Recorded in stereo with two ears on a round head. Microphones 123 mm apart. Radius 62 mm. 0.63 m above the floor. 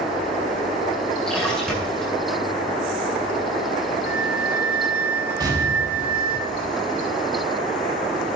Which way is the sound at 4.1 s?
15° right (ahead or behind).